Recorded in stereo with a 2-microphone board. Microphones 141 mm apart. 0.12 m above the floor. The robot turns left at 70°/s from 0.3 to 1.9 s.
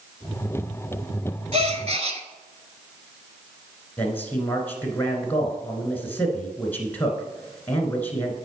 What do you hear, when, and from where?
1.5 s a gasp: 50° right (ahead or behind), 0.8 m
4.0 s a man speaking: 15° left (ahead or behind), 1.7 m